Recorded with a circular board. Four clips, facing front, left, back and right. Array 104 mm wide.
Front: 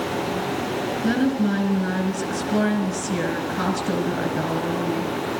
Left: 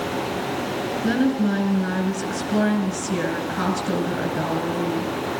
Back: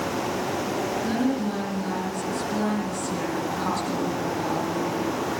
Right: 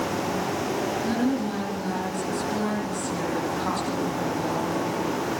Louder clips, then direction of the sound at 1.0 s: Left 7 dB, front 6 dB; 60° left.